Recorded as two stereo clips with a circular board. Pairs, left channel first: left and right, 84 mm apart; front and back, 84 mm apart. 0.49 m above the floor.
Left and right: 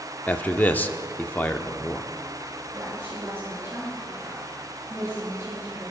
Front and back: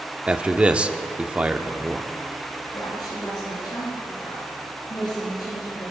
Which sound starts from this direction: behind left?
A man speaking, at 0.3 s.